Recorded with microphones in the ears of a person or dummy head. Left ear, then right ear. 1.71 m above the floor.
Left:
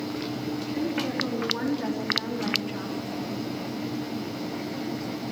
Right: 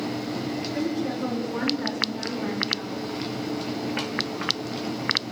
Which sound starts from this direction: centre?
A woman speaking, at 0.7 s.